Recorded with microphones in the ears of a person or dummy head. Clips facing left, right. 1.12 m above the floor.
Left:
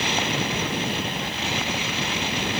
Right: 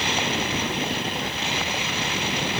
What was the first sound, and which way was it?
Only background noise.